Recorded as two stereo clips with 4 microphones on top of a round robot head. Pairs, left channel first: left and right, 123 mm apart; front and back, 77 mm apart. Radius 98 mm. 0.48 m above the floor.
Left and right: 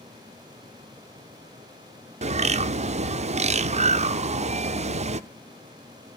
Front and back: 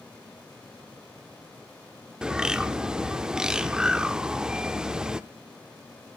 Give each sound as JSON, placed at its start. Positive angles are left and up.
{"t": 2.2, "sound": "a bird", "azimuth_deg": -100, "distance_m": 0.7}